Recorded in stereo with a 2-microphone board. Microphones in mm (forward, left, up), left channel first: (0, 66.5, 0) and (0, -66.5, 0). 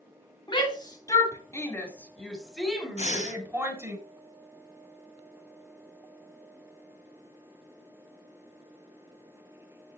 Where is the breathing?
60° left (ahead or behind), 1.7 m.